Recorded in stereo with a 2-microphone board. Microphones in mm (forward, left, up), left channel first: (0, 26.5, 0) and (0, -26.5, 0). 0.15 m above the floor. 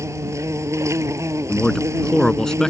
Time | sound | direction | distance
0.0 | an insect | 65° right (ahead or behind) | ?
1.5 | a man speaking | 10° left (ahead or behind) | ?